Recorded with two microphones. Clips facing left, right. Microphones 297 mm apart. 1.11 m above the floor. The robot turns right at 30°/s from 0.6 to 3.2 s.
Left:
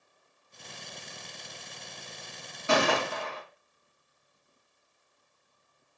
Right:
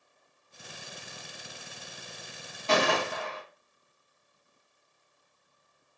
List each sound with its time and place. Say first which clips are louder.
2.7 s a gunshot: even; 10° left (ahead or behind), 1.4 m; by 3.4 s 25° left (ahead or behind), 1.4 m